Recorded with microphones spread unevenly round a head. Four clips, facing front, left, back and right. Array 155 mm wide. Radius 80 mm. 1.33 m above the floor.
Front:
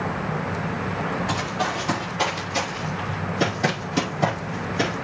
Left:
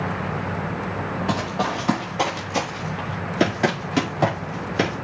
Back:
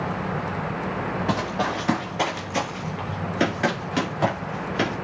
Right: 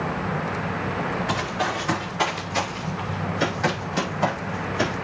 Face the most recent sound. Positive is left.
turn(degrees=100)